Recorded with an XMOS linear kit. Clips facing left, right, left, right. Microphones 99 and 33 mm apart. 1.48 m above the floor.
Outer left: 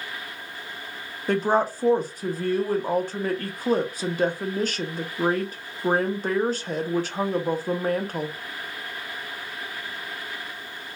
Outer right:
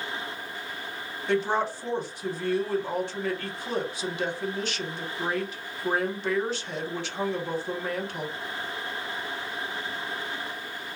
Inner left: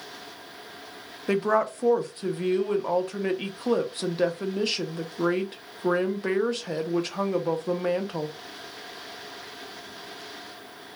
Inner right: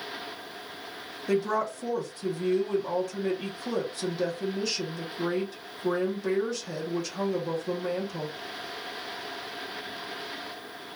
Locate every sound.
1.3 s a woman speaking: 45° left (ahead or behind), 0.6 m